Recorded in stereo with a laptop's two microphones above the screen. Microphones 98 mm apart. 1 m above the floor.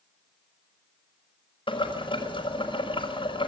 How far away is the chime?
No chime in this recording.